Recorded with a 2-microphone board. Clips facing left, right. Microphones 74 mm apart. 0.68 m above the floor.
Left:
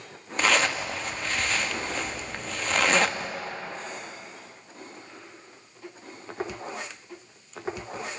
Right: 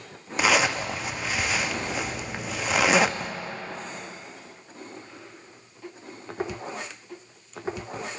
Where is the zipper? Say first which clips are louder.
Right 2 dB; 10° right (ahead or behind), 0.6 m.